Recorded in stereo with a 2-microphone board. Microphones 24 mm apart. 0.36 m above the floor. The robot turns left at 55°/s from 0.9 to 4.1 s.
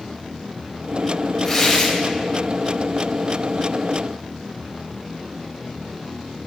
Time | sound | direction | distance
1.4 | tearing paper | centre (ahead or behind) | 3.5 m